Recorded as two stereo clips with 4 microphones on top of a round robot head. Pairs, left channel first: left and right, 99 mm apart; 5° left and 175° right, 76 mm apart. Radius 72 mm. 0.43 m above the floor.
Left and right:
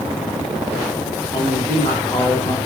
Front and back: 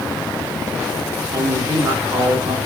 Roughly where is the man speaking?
Behind.